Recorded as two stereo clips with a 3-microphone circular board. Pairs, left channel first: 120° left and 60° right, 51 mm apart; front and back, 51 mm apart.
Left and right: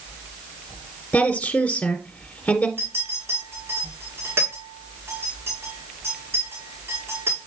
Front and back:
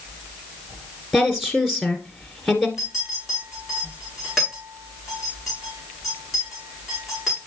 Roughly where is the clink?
Right.